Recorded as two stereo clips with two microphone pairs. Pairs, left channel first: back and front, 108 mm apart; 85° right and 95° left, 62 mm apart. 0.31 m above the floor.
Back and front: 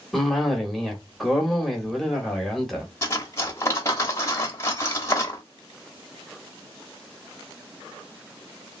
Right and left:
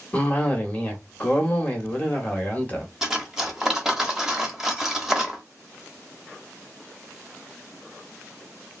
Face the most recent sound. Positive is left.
turn(degrees=160)